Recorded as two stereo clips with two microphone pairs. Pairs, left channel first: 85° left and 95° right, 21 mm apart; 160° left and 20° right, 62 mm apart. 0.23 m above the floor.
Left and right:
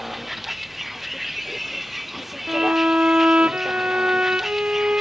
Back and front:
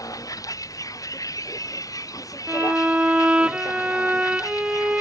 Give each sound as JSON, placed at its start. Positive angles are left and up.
{"t": 0.0, "sound": "a vehicle", "azimuth_deg": -175}
{"t": 2.5, "sound": "a violin", "azimuth_deg": -90}